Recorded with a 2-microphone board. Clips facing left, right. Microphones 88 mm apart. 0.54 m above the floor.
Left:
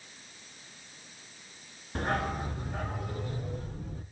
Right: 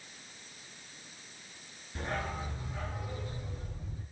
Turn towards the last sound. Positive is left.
turn(degrees=60)  # may be behind; listen again after turning